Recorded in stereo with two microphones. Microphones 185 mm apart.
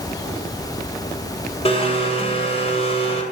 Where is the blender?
35° left (ahead or behind), 1.9 m.